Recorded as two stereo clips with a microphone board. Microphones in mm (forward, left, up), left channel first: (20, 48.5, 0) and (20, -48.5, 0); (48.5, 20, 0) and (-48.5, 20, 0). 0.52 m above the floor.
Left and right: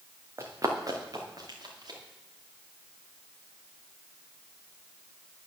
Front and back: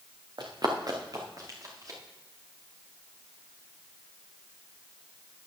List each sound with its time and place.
0.4 s running footsteps: 145° right, 1.7 m; by 2.0 s 130° right, 4 m